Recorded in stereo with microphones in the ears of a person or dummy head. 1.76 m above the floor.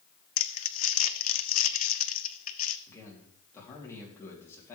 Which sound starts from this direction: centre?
A man speaking, at 2.9 s.